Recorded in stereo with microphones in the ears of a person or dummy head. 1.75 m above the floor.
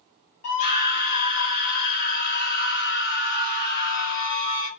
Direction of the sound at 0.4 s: 45° left (ahead or behind).